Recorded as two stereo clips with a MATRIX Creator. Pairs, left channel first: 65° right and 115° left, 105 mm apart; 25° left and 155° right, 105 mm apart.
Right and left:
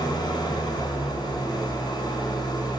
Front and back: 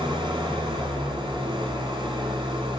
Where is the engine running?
115° right, 5 m.